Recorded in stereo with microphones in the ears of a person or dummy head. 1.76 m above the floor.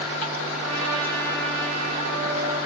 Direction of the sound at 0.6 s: 85° right.